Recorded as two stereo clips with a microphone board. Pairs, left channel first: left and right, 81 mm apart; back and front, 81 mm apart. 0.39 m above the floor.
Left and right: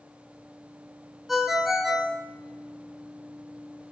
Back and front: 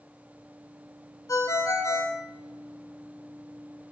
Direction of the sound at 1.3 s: 175° right.